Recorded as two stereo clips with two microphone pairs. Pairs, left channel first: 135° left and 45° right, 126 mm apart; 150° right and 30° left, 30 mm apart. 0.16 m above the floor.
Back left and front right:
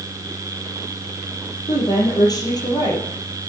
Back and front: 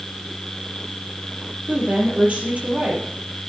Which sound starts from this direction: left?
A woman speaking, at 1.7 s.